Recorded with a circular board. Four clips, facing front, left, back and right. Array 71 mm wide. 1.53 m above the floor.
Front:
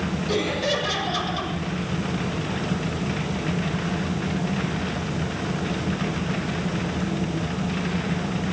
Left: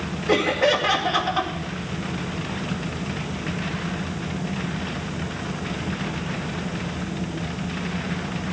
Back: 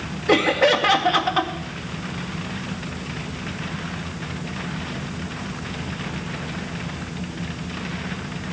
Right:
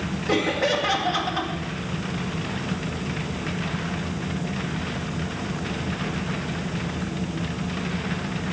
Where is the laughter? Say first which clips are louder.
Left 3 dB, back 9 dB; 170° left, 2 m.